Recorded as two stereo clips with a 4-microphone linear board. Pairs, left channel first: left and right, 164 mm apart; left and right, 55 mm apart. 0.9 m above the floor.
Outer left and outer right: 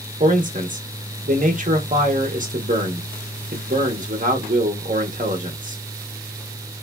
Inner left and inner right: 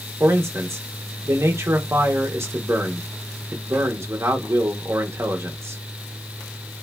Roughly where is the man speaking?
Right.